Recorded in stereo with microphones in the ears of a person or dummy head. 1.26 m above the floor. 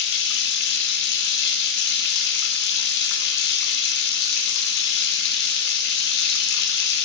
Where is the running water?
55° left (ahead or behind), 1.6 m.